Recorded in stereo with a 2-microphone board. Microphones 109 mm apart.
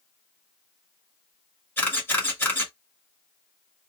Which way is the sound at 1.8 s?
20° left (ahead or behind).